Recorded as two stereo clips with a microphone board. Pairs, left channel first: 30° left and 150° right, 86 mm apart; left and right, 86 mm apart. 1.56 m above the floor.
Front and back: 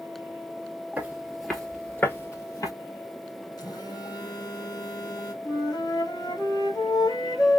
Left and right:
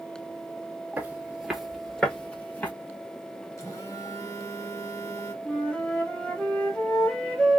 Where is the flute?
20° left, 1.3 m.